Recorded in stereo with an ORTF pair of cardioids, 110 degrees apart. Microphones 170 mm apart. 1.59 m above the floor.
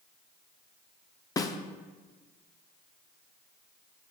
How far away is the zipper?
No zipper in this recording.